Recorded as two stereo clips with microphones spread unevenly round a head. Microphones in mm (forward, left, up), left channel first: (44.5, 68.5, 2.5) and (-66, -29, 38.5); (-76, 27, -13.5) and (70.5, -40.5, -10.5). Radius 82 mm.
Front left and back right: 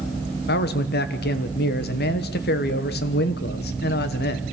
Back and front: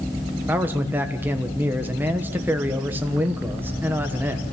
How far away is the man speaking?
About 1.1 m.